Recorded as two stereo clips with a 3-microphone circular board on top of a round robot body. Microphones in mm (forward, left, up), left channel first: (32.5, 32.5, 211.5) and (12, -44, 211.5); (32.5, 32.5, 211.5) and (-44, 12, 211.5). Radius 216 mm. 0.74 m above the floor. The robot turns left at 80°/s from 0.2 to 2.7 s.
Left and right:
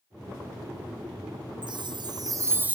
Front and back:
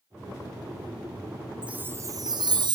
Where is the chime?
85° right, 0.6 m; by 2.8 s 175° right, 0.6 m.